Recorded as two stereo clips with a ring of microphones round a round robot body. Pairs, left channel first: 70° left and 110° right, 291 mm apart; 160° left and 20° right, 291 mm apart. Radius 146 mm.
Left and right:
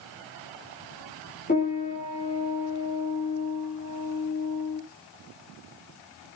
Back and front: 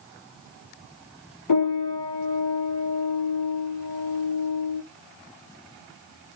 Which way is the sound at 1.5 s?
135° left.